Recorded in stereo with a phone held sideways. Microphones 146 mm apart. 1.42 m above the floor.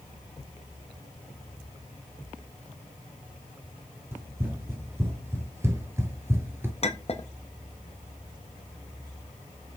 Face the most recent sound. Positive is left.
turn(degrees=45)  # may be behind; listen again after turning